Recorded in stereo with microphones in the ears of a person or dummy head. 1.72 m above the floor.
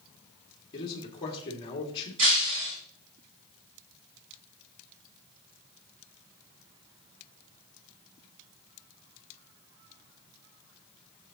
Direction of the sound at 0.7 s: 30° left (ahead or behind).